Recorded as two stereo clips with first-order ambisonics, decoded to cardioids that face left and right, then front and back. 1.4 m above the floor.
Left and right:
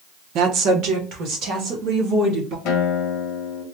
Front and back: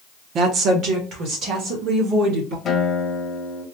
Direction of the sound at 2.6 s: 65° left.